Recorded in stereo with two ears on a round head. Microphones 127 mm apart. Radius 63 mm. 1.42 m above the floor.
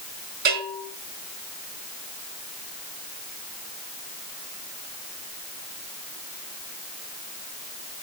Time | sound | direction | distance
0.5 | a bell | 70° right (ahead or behind) | 4.5 m